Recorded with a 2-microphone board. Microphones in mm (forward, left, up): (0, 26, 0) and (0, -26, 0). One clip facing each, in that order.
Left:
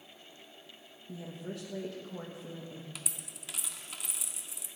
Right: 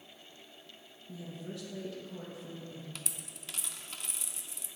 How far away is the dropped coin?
About 0.7 m.